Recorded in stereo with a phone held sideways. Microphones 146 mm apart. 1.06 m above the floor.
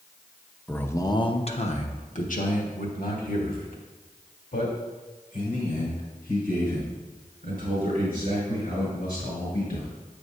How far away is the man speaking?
About 0.7 m.